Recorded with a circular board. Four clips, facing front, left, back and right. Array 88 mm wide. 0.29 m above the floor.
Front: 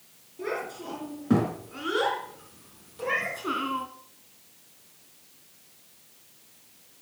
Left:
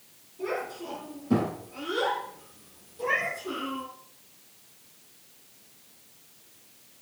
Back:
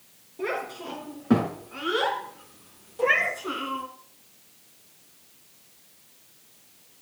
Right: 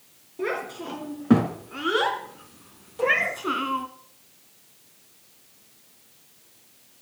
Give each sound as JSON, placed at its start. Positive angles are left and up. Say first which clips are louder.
{"t": 0.4, "sound": "a child speaking", "louder": "right 3 dB, back 2 dB", "azimuth_deg": -110, "distance_m": 4.0}
{"t": 3.0, "sound": "a cat meowing", "louder": "right 5 dB, back 6 dB", "azimuth_deg": -130, "distance_m": 1.5}